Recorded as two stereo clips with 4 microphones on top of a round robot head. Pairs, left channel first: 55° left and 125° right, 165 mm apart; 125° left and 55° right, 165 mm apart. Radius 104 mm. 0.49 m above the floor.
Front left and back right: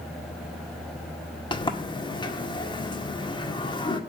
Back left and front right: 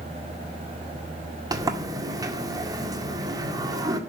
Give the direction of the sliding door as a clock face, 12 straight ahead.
12 o'clock.